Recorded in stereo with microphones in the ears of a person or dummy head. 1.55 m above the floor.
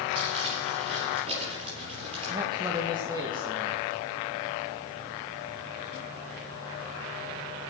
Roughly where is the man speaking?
Right.